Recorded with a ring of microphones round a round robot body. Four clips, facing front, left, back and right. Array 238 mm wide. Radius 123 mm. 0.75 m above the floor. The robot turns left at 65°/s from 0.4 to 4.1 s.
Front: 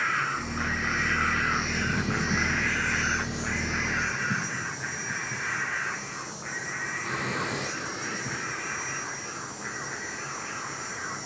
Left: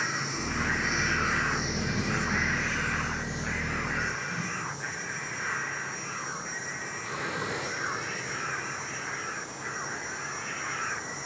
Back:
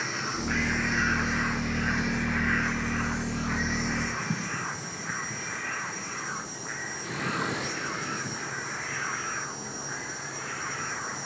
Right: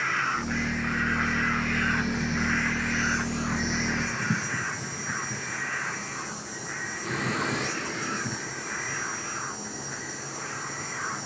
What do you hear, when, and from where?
0.0 s an insect: 125° left, 6.5 m; by 11.3 s 115° right, 6.5 m